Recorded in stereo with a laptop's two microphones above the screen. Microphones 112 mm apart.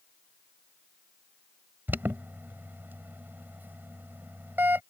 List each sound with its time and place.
1.9 s an alarm: 20° right (ahead or behind)